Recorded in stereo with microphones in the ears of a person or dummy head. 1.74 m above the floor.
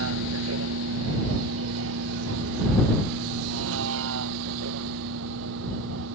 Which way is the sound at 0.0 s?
80° right.